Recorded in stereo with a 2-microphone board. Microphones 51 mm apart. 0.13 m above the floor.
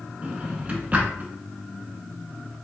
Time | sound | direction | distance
0.2 | a drawer | 30° right (ahead or behind) | 0.7 m